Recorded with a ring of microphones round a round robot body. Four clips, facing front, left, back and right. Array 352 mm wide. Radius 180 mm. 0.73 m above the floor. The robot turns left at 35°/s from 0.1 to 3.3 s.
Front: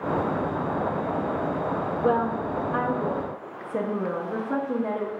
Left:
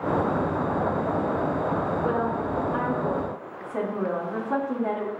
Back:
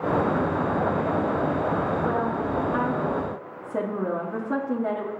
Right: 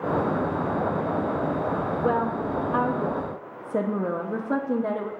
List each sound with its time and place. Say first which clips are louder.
2.0 s a woman speaking: right 1 dB, front 1 dB; 45° right, 1.0 m; by 5.1 s 90° right, 1.0 m